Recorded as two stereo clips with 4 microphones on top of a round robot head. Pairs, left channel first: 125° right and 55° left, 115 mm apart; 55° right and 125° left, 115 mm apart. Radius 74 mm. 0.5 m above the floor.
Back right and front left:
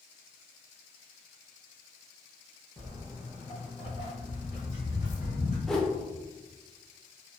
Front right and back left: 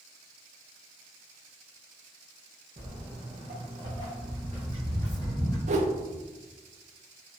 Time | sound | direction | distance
2.8 | footsteps | 145° left | 1.2 m
5.7 | a whoosh | 145° left | 0.5 m